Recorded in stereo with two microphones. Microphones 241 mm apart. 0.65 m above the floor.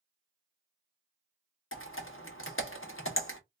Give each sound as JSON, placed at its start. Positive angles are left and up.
{"t": 1.7, "sound": "typing on a keyboard", "side_deg": 65, "distance_m": 0.8}